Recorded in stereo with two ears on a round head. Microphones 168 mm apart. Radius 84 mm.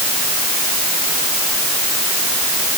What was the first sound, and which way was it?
Only background noise.